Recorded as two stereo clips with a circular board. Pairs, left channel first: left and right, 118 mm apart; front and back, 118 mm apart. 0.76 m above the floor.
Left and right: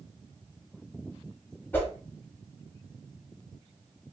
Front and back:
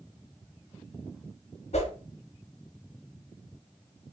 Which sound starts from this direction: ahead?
A whoosh, at 1.7 s.